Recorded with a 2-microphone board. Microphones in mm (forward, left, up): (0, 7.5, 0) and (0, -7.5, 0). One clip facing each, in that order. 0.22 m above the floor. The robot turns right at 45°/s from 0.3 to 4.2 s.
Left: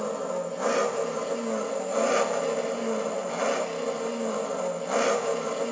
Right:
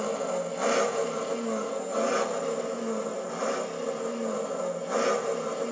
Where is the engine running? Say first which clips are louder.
Even; 30° right, 1.2 m; by 5.7 s 145° left, 1.2 m.